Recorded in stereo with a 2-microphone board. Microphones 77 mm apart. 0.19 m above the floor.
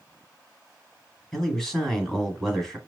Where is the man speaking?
5° left (ahead or behind), 1.6 m.